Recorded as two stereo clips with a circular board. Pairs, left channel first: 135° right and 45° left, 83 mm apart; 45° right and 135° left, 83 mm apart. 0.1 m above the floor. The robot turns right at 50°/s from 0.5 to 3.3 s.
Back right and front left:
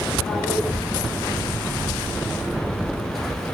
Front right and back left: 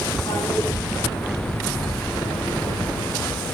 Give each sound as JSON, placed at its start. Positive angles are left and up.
{"t": 0.3, "sound": "a toilet flushing", "azimuth_deg": -50, "distance_m": 6.0}